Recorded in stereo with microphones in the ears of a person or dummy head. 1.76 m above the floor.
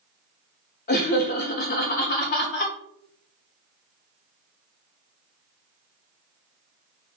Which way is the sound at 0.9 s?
40° left (ahead or behind).